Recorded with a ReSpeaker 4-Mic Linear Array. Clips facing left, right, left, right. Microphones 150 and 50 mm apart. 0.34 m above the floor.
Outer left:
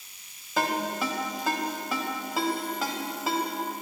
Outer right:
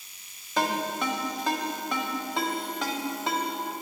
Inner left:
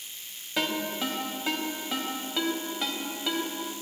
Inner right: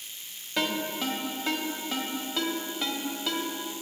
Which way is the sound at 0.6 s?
5° left (ahead or behind).